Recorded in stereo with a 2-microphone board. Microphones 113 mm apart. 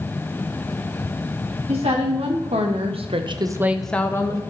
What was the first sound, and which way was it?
A woman speaking, 65° right (ahead or behind).